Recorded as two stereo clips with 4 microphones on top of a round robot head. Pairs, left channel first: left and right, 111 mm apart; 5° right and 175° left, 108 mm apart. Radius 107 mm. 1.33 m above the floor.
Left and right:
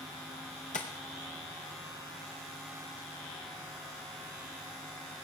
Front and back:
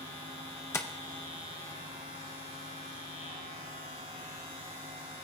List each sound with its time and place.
0.7 s tapping: 55° left, 0.7 m